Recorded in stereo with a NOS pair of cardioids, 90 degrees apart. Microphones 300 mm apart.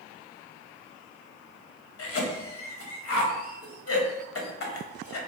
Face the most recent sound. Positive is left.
turn(degrees=55)